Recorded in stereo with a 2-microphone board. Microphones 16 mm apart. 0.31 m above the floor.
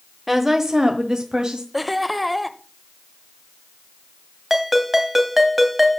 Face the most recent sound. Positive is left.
turn(degrees=-15)  # may be behind; listen again after turning